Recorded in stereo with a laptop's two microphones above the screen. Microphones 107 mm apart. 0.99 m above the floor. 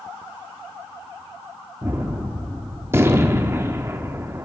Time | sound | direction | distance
1.8 | a gunshot | 25° right (ahead or behind) | 0.8 m